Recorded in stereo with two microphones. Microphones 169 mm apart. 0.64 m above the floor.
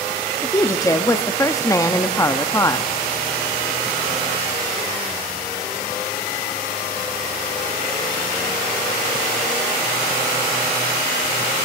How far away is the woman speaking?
About 0.5 m.